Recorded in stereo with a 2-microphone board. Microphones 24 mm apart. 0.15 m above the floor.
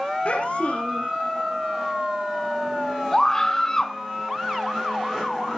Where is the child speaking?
60° left (ahead or behind), 3 m.